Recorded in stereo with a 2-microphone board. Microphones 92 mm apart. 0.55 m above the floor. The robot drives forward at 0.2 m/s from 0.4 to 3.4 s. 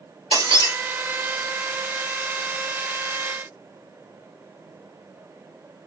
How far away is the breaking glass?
About 2.5 m.